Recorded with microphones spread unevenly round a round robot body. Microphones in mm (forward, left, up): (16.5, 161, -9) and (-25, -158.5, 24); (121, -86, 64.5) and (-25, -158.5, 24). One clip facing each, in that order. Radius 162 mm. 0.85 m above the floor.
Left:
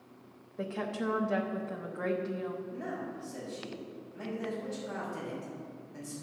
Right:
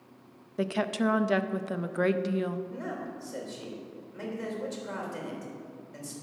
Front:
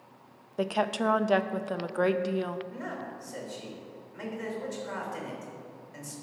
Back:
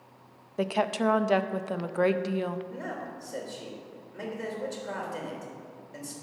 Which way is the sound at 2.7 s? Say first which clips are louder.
Right 1 dB, back 1 dB; 105° right.